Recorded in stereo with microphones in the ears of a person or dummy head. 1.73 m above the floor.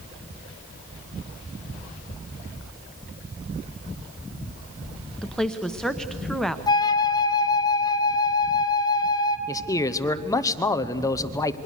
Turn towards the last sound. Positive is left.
turn(degrees=20)  # may be behind; listen again after turning